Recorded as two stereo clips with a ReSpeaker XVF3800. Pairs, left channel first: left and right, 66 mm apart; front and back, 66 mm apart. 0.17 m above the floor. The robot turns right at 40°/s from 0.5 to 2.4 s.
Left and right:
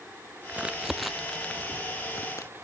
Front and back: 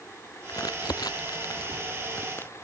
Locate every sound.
0.5 s crumpling: 25° right; by 2.5 s 55° left